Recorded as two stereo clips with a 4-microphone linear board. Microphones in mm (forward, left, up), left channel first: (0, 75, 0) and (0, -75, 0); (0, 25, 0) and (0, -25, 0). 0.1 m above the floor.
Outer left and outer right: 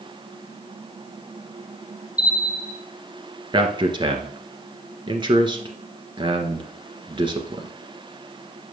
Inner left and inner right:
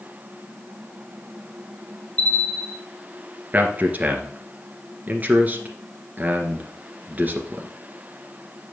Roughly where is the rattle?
No rattle in this recording.